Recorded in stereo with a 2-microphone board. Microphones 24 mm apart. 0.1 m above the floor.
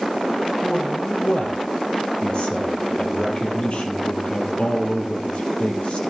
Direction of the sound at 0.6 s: 50° left (ahead or behind).